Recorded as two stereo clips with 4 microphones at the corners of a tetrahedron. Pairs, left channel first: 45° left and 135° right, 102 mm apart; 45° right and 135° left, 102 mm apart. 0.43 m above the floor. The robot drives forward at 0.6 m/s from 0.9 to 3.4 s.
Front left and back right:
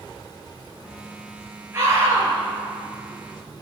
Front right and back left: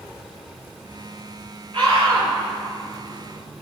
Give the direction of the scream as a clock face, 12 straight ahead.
7 o'clock.